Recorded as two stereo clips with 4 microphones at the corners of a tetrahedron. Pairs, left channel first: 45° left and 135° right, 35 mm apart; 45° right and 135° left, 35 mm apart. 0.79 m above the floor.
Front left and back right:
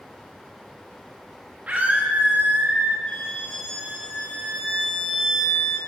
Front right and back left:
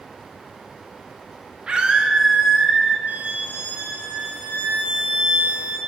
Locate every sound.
1.7 s a scream: 170° right, 1.2 m; by 3.0 s 135° right, 1.5 m
3.1 s a violin: 115° left, 2 m